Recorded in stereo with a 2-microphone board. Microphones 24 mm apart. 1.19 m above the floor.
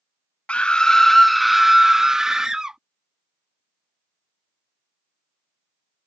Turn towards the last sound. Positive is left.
turn(degrees=-30)  # may be behind; listen again after turning